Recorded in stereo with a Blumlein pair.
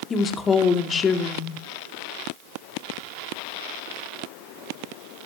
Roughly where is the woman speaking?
Ahead.